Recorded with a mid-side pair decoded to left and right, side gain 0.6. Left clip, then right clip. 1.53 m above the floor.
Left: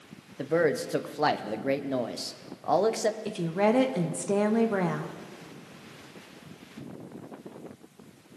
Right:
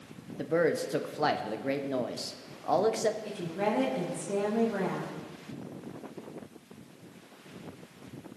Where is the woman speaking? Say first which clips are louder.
Left 5 dB; 45° left, 1.4 m.